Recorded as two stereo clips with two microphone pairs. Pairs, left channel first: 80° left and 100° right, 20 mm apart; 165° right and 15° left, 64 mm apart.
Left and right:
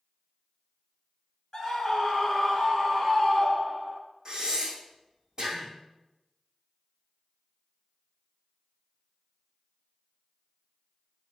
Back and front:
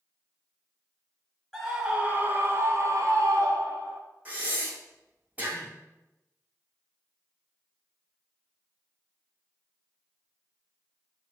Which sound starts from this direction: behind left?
A scream, at 1.5 s.